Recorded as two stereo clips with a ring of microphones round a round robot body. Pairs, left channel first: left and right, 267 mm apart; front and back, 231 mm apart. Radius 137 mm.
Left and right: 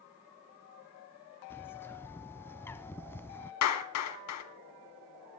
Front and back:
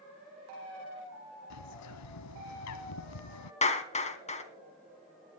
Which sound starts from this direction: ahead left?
A clap, at 3.6 s.